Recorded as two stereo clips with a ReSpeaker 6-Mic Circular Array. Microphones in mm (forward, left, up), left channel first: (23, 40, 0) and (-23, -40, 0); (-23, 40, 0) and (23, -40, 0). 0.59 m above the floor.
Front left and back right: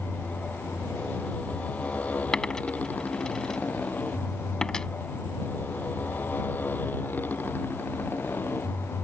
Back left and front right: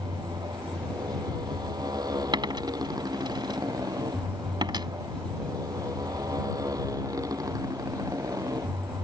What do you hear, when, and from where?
0.0 s a motorcycle: 15° right; by 9.1 s 5° right
2.3 s a dropped coin: 20° right